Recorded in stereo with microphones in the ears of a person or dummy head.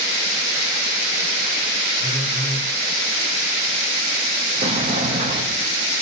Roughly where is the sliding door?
Right.